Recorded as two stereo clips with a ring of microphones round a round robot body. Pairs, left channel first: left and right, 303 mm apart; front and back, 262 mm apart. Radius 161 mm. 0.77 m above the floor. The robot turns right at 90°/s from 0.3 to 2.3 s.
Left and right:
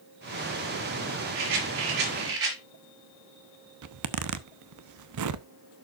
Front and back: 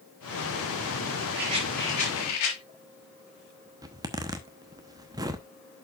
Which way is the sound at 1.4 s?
125° right.